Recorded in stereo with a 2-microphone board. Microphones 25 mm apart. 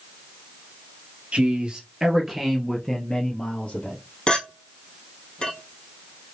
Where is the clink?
40° left (ahead or behind), 2 m.